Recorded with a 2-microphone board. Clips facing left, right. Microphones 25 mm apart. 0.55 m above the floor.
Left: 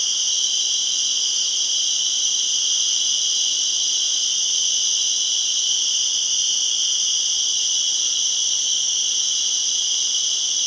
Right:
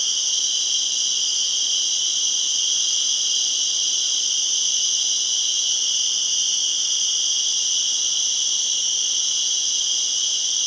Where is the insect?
55° left (ahead or behind), 2.5 m.